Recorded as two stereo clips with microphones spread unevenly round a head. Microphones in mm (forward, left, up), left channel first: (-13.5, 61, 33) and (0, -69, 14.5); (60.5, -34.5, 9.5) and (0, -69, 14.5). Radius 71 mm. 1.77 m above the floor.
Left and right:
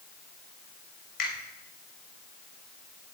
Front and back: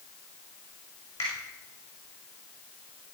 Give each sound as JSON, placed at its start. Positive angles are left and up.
{"t": 1.2, "sound": "a finger snap", "azimuth_deg": 90, "distance_m": 6.5}